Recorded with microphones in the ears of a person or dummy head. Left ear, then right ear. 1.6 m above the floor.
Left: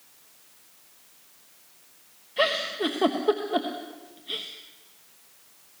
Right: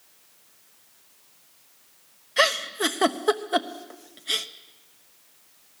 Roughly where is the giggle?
Right.